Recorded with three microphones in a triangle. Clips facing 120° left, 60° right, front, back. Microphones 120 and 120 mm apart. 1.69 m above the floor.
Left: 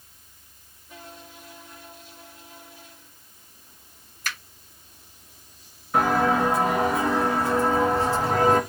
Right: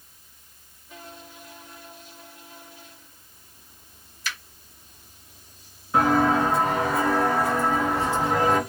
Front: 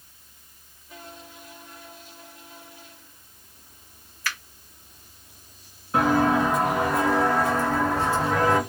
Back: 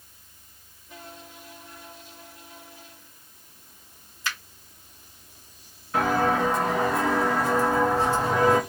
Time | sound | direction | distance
4.2 | a finger snap | 120° left | 0.8 m
5.9 | footsteps | 25° left | 1.7 m